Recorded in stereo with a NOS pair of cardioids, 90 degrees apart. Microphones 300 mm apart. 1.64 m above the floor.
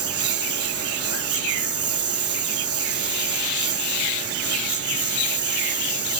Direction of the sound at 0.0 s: 50° right.